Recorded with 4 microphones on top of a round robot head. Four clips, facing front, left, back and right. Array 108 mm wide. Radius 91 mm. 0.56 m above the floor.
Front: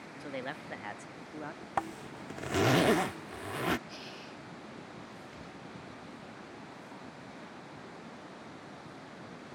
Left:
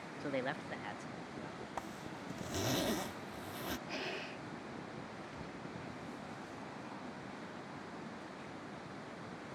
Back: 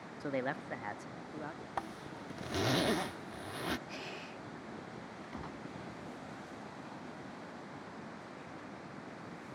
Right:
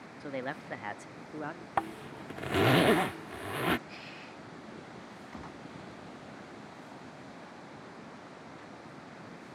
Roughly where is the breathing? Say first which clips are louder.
Left 4 dB, back 1 dB; left.